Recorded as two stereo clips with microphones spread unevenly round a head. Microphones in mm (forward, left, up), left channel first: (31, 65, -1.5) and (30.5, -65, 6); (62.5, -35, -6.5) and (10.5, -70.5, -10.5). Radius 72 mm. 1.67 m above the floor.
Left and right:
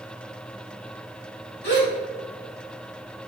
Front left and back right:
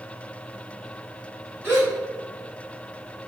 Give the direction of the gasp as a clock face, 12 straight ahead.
8 o'clock.